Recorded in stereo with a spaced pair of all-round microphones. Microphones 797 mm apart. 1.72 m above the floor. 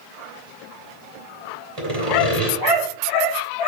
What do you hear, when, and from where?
1.8 s sawing: 50° right (ahead or behind), 3 m